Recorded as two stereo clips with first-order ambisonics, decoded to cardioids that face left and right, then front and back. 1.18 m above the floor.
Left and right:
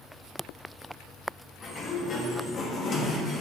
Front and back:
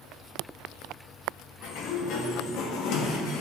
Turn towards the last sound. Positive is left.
turn(degrees=30)